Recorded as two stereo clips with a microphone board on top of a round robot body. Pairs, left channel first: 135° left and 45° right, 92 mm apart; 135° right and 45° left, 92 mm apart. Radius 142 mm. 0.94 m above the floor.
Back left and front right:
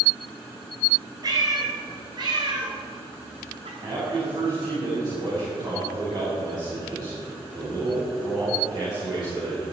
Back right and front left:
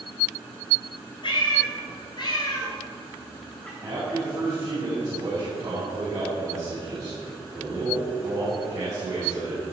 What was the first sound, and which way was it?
A cat meowing, 95° right.